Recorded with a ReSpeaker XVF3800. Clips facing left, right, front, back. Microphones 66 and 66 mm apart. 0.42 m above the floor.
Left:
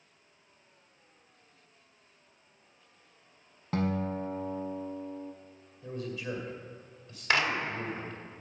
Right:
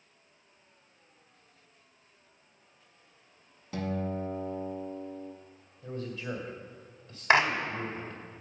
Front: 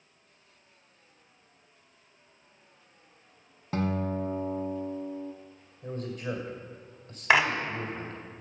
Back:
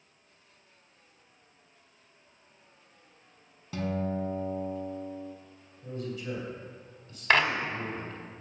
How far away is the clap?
About 0.9 m.